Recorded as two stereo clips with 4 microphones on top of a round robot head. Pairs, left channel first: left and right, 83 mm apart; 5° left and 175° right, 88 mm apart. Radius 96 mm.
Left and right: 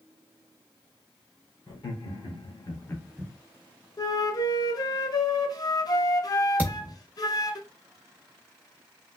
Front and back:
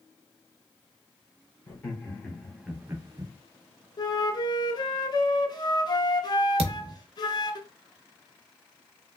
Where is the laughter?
75° left, 2 m; by 3.3 s 155° right, 0.9 m.